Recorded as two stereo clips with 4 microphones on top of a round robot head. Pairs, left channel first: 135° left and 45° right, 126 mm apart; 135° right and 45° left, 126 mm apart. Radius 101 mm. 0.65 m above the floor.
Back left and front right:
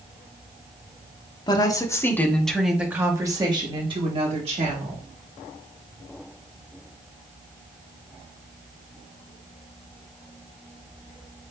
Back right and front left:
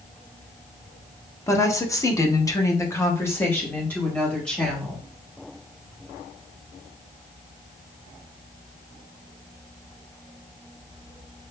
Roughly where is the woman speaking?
Behind.